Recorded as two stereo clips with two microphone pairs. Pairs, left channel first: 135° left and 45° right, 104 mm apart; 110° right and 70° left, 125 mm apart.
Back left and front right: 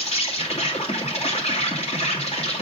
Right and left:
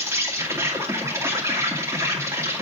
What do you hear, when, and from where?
0.0 s an insect: 135° left, 2.5 m